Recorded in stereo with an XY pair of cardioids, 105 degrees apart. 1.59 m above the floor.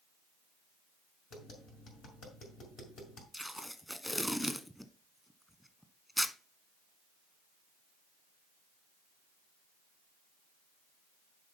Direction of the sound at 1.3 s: 70° left.